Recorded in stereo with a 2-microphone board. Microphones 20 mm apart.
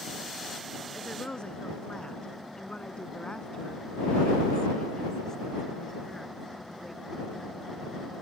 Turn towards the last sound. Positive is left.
turn(degrees=10)  # may be behind; listen again after turning